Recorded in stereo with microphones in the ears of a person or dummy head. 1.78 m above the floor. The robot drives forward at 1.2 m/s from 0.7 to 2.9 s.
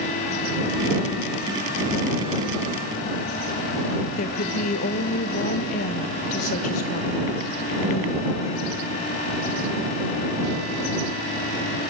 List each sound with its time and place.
4.2 s a woman speaking: 40° left (ahead or behind), 0.9 m